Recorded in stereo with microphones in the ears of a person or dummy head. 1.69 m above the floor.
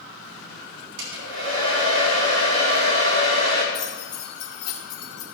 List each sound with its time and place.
1.0 s a hair dryer: 70° right (ahead or behind), 4 m
3.7 s keys jangling: 30° left (ahead or behind), 3 m